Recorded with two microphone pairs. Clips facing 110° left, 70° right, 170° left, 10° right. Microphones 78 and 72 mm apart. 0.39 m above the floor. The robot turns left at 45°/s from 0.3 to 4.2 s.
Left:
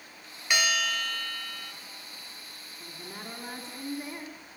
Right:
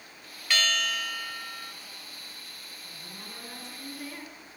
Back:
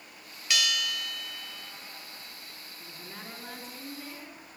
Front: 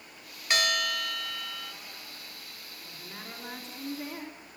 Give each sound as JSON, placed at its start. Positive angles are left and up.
{"t": 0.5, "sound": "a bell", "azimuth_deg": 35, "distance_m": 0.8}
{"t": 2.8, "sound": "a woman speaking", "azimuth_deg": 105, "distance_m": 4.0}